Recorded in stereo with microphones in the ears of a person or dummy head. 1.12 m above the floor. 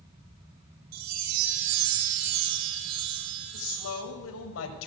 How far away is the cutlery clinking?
No cutlery clinking in this recording.